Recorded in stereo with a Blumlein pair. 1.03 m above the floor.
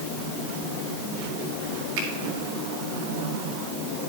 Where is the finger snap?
50° right, 2.5 m.